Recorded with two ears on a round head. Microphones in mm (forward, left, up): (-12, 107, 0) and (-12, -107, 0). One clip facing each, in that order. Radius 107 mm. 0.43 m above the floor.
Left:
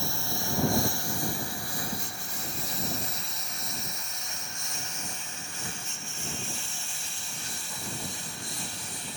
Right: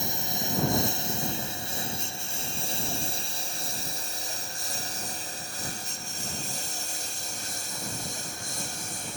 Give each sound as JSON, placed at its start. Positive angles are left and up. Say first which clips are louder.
{"t": 0.0, "sound": "a lawn mower", "louder": "right 1 dB", "side_deg": -20}